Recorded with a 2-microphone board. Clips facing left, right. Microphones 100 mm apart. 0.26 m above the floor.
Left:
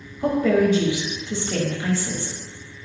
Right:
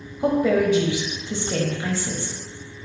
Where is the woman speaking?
15° right (ahead or behind), 0.9 m.